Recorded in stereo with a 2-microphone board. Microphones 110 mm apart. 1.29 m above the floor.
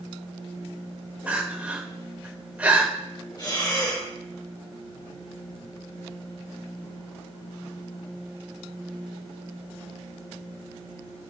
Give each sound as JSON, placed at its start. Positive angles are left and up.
{"t": 1.3, "sound": "crying", "side_deg": -15, "distance_m": 2.5}
{"t": 3.4, "sound": "breathing", "side_deg": 40, "distance_m": 5.0}